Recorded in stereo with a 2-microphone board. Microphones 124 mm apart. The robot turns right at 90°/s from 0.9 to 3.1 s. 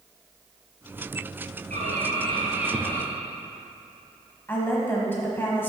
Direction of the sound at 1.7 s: 100° right.